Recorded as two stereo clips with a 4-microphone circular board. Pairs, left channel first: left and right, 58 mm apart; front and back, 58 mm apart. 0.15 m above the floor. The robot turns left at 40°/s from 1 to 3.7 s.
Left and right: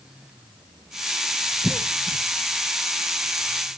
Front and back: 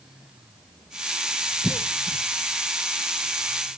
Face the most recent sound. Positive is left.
turn(degrees=-65)